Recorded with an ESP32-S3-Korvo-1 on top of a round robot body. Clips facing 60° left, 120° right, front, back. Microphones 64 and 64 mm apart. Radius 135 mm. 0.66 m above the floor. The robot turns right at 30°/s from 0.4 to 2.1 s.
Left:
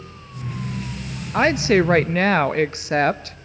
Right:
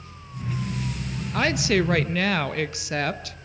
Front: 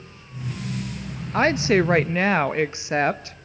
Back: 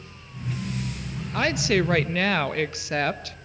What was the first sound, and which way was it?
A woman speaking, 25° left.